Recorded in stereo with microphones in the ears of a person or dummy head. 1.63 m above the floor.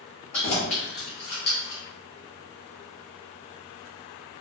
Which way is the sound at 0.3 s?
35° left (ahead or behind).